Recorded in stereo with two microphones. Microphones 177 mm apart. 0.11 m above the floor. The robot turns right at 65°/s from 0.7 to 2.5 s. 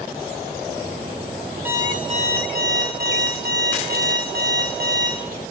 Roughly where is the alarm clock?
Behind.